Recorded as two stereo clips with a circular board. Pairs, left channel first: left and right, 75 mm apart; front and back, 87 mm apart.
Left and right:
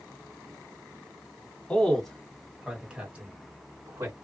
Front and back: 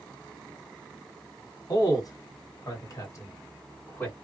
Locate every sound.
1.7 s a man speaking: 15° left, 1.7 m; by 4.1 s 55° right, 1.7 m